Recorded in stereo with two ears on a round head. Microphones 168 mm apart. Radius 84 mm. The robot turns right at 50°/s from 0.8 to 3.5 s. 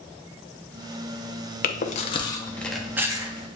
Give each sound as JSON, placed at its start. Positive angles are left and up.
{"t": 1.6, "sound": "chewing", "side_deg": 50, "distance_m": 0.6}